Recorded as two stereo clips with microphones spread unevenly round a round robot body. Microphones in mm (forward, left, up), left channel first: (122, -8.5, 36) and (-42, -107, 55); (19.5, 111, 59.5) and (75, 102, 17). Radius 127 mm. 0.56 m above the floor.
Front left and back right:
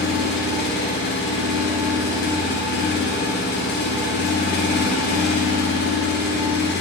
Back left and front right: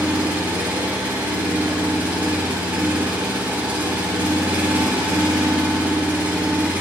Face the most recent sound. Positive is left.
turn(degrees=20)